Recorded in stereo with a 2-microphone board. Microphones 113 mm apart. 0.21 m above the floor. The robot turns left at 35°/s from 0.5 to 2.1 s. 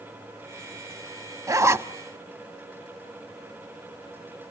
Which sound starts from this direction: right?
A zipper, at 1.5 s.